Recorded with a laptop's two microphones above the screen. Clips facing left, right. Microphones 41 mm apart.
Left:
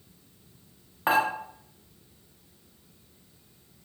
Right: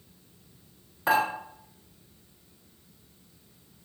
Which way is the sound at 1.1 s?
30° left (ahead or behind).